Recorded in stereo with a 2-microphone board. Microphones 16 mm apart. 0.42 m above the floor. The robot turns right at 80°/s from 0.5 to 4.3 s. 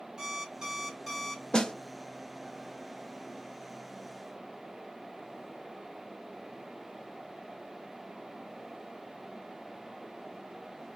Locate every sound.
0.2 s an alarm clock: 50° right, 1.2 m; by 1.4 s 25° left, 1.2 m
1.5 s a snare drum: 45° left (ahead or behind), 0.5 m; by 1.7 s 55° left (ahead or behind), 0.5 m